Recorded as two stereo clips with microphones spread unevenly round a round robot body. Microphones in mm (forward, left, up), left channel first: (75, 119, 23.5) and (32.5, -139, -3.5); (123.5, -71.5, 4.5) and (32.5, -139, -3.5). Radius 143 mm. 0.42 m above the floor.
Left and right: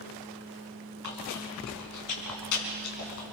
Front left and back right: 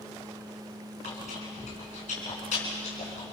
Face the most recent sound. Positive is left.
turn(degrees=70)